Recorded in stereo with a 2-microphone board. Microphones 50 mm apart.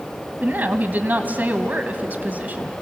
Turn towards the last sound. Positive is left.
turn(degrees=-35)  # may be behind; listen again after turning